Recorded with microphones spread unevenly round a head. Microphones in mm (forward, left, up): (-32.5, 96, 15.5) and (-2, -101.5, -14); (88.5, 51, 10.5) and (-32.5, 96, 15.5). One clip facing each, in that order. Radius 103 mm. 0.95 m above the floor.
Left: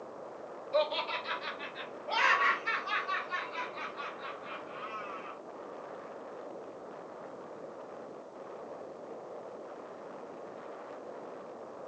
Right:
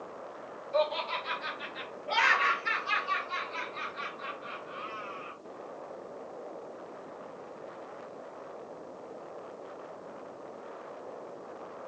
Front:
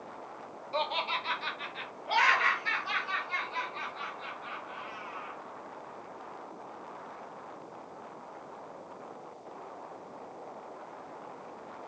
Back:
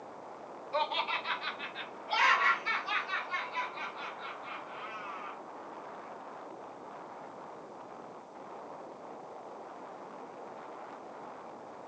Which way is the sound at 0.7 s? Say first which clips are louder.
Right 1 dB, even; 30° left.